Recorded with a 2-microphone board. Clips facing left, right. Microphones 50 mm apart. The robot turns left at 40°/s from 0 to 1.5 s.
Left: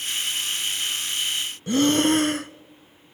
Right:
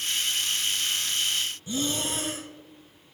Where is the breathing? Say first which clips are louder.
Left 13 dB; 55° left (ahead or behind), 0.6 m.